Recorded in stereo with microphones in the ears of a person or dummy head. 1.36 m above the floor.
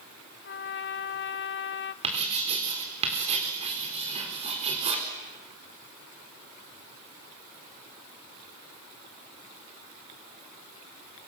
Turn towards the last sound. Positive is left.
turn(degrees=-35)  # may be behind; listen again after turning